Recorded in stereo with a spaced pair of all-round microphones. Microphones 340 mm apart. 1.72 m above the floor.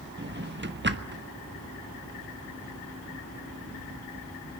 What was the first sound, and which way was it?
A drawer, 35° right (ahead or behind).